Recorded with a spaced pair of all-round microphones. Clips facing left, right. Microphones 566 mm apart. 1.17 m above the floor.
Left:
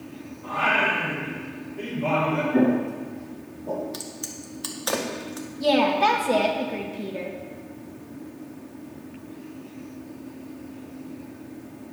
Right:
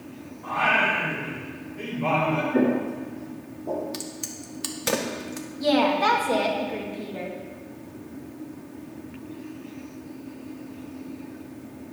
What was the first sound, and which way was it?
Singing, 30° right (ahead or behind).